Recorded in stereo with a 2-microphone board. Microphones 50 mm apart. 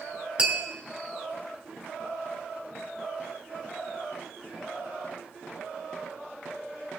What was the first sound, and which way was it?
Tapping, 20° right (ahead or behind).